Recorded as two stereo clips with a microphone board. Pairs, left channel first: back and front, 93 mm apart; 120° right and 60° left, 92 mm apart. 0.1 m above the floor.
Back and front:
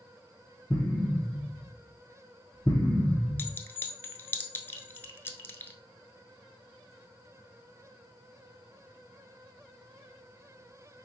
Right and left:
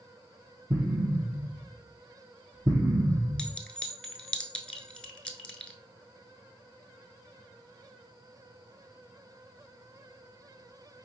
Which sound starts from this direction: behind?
A clink, at 3.4 s.